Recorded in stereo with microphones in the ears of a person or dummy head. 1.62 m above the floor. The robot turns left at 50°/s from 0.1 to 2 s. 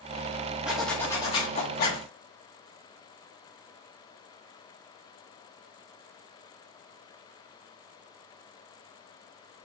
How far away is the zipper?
About 2 m.